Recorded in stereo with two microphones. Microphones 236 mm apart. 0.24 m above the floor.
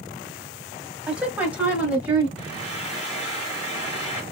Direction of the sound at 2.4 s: 30° left (ahead or behind).